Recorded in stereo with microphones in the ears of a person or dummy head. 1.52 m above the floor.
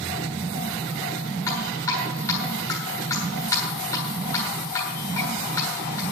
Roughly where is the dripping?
Centre.